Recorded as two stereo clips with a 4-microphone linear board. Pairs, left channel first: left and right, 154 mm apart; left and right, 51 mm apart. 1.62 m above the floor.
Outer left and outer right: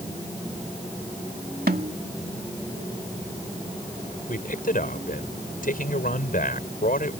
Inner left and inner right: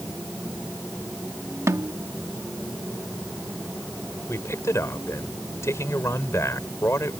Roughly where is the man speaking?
Left.